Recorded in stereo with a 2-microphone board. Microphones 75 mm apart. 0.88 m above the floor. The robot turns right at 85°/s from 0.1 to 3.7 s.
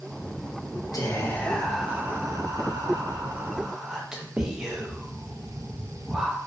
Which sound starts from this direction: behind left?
Whispering, at 0.9 s.